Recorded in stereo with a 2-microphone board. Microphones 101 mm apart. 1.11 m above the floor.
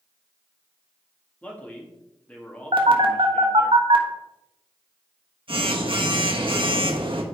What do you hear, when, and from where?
1.4 s a man speaking: 15° left (ahead or behind), 2.5 m
2.7 s a phone buzzing: 65° right (ahead or behind), 1.3 m